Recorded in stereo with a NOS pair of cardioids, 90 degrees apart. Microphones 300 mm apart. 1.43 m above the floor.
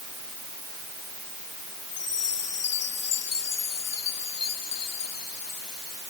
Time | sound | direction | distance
1.9 | a chime | 55° left | ?